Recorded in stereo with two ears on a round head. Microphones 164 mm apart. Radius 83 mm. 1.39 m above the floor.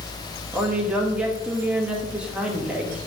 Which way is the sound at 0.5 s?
5° right (ahead or behind).